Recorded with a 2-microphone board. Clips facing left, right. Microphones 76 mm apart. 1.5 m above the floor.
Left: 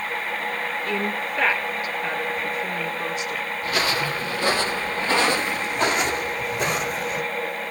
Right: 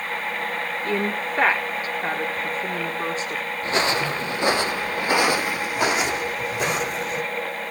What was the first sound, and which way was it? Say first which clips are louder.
A woman speaking: right 3 dB; 35° right (ahead or behind).